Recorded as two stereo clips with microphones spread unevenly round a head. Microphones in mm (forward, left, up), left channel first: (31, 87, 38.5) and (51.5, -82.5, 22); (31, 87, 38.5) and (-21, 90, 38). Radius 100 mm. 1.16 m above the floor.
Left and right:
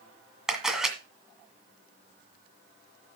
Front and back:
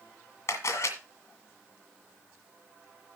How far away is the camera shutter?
About 2.0 m.